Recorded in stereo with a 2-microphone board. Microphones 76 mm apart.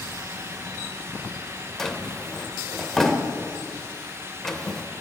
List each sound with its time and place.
1.8 s a drawer: 5° left (ahead or behind), 0.9 m